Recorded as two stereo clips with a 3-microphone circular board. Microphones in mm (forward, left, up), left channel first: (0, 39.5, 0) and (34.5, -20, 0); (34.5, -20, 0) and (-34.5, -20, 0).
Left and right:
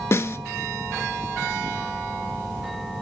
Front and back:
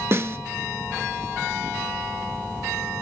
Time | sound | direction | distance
0.1 | a snare drum | 150° left | 0.7 m